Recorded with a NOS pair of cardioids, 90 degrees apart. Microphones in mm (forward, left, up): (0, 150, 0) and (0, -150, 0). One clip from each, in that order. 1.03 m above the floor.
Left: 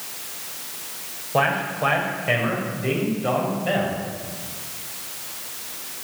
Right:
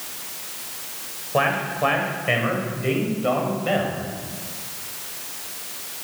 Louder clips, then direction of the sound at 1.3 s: Even; straight ahead.